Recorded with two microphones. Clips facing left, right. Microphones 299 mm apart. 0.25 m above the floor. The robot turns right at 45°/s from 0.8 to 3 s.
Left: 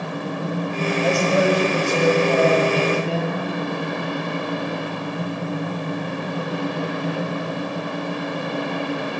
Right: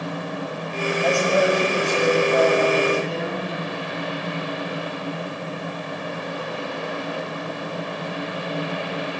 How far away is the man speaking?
About 7 m.